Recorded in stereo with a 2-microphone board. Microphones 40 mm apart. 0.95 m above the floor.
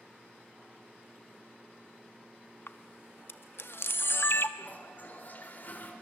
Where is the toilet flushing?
50° left (ahead or behind), 3.5 m.